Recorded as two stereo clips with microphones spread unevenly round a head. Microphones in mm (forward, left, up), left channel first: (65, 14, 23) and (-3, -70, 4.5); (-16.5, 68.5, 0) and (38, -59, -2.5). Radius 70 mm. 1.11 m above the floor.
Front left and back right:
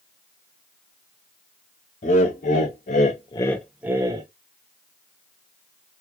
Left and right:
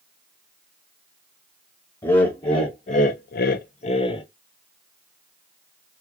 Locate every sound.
2.0 s laughter: 50° left, 1.1 m; by 4.3 s 175° left, 0.8 m